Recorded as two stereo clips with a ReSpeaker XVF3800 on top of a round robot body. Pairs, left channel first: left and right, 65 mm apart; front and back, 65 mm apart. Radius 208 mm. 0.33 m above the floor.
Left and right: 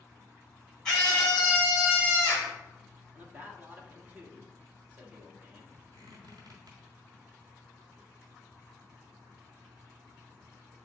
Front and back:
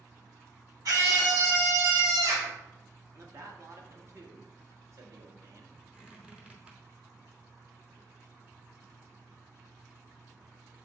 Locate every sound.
0.8 s a scream: 165° left, 3 m; by 2.5 s 160° left, 4 m
3.1 s a man speaking: 150° right, 1.5 m
5.9 s a squeak: 105° right, 0.9 m